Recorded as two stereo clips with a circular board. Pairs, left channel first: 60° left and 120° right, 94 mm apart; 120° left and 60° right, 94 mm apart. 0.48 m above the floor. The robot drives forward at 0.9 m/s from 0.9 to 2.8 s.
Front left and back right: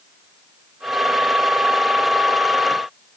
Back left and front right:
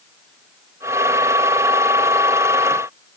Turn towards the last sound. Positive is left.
No sound to turn to.